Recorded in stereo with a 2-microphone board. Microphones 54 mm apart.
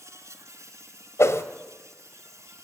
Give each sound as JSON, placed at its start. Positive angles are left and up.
{"t": 0.0, "sound": "an insect", "side_deg": -65, "distance_m": 1.6}
{"t": 1.2, "sound": "a whoosh", "side_deg": 60, "distance_m": 1.4}